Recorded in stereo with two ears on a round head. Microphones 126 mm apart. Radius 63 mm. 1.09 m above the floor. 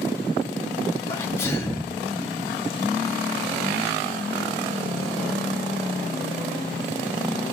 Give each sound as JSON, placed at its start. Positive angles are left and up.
{"t": 1.1, "sound": "a sneeze", "side_deg": 20, "distance_m": 1.6}